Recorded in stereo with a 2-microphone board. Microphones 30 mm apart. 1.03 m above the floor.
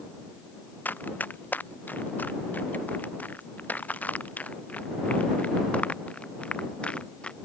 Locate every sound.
0.8 s running footsteps: 85° left; by 7.4 s 35° left (ahead or behind)